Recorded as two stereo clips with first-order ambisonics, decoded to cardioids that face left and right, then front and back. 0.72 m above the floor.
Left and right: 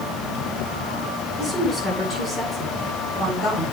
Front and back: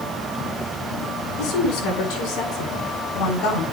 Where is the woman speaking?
10° left, 8 m; by 3.6 s 20° left, 6.5 m.